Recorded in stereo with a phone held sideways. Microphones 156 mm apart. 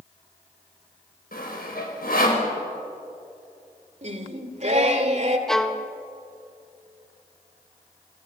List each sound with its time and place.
1.3 s sawing: 75° left (ahead or behind), 5 m
4.0 s singing: 45° right (ahead or behind), 2 m
5.5 s a violin: 5° left (ahead or behind), 1.3 m